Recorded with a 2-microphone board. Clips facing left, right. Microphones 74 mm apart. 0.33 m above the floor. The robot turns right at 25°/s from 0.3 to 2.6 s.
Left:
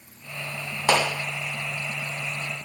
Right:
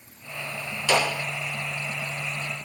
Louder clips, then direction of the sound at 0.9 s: Left 1 dB; 50° left (ahead or behind).